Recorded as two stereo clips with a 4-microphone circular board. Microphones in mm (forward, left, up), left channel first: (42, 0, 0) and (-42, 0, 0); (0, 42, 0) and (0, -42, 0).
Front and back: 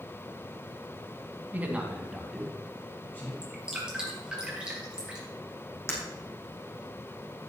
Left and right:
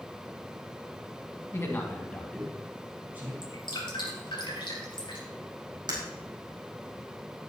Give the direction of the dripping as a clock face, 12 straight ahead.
9 o'clock.